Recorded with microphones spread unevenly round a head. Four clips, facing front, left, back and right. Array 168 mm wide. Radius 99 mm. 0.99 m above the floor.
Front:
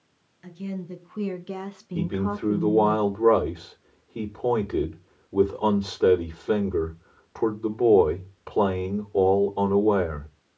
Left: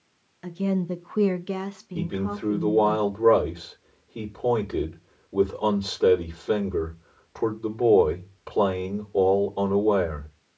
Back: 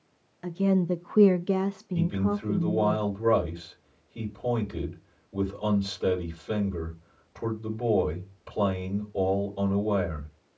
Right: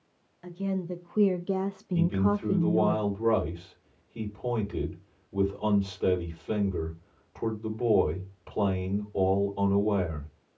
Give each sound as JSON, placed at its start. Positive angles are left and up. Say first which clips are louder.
{"t": 0.4, "sound": "a woman speaking", "louder": "left 5 dB, back 9 dB", "azimuth_deg": 125, "distance_m": 0.7}
{"t": 1.9, "sound": "a man speaking", "louder": "right 2 dB, front 2 dB", "azimuth_deg": 35, "distance_m": 3.0}